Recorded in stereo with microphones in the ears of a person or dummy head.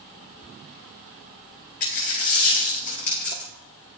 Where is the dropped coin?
40° left (ahead or behind), 1.1 m.